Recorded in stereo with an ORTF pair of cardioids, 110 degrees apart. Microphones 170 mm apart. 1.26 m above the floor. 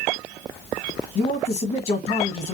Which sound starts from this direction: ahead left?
A man speaking, at 1.1 s.